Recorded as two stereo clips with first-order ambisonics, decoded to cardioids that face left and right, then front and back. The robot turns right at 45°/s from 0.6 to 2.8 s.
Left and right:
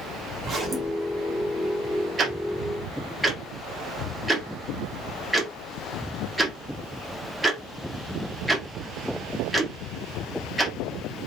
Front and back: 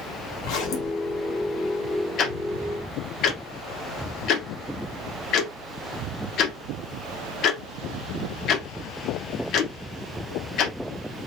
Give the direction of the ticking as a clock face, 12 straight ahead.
1 o'clock.